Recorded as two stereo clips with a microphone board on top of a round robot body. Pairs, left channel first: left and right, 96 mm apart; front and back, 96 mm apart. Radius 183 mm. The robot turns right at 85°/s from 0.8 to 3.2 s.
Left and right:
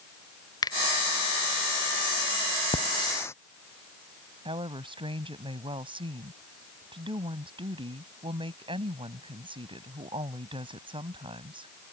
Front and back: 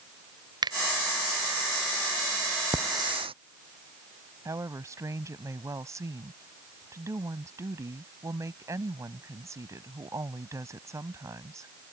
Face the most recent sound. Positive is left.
turn(degrees=-120)